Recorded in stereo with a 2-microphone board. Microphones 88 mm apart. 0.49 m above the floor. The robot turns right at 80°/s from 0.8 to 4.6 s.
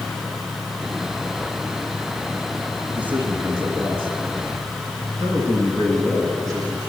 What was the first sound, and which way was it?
A man speaking, 175° right.